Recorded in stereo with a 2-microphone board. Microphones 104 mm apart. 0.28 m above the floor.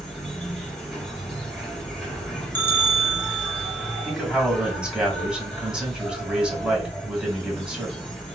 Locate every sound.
0.0 s an insect: 5° left (ahead or behind), 2.5 m
2.5 s a bell: 20° left (ahead or behind), 1.1 m
4.0 s a man speaking: 10° right (ahead or behind), 2 m